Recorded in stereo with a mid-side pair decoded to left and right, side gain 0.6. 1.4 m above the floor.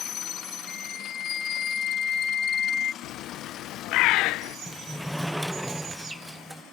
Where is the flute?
40° left.